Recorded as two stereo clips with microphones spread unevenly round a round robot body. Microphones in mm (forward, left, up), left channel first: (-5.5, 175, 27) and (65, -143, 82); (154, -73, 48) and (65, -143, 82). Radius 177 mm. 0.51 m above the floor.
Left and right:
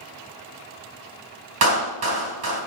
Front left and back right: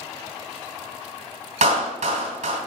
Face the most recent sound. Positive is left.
turn(degrees=-125)